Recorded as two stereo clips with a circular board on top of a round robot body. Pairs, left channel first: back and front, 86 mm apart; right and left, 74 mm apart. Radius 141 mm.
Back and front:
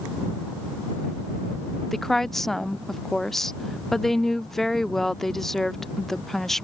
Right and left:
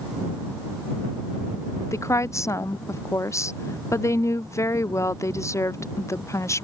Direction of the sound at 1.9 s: 95° right.